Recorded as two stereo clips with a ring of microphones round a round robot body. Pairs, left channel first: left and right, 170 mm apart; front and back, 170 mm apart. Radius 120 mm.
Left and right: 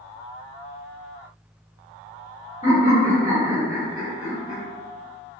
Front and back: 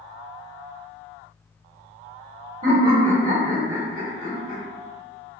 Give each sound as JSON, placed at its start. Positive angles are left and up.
{"t": 2.6, "sound": "laughter", "azimuth_deg": 135, "distance_m": 1.2}